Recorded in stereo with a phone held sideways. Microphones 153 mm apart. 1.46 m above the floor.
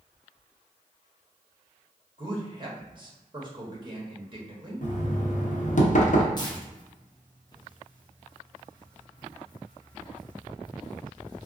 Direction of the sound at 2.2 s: 35° right (ahead or behind).